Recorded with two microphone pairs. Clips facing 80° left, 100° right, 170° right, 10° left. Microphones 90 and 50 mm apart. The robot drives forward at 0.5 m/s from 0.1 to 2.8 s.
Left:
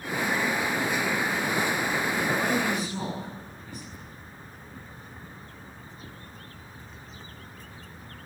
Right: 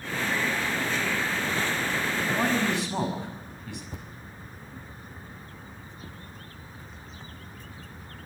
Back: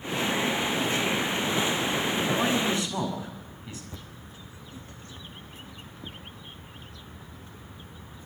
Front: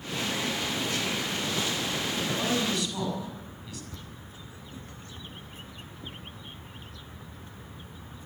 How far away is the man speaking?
About 6 m.